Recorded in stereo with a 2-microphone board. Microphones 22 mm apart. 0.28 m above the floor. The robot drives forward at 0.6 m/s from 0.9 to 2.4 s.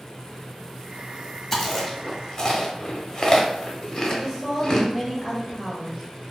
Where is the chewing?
20° left (ahead or behind), 0.7 m; by 4.9 s 25° left (ahead or behind), 0.5 m.